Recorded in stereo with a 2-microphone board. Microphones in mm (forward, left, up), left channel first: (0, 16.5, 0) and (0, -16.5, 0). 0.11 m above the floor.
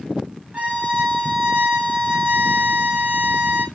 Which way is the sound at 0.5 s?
40° right (ahead or behind).